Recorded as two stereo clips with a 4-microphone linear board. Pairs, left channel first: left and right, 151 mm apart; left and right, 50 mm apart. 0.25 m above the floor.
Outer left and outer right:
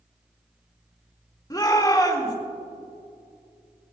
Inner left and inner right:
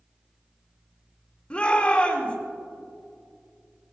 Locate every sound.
1.5 s a shout: 25° left (ahead or behind), 2.5 m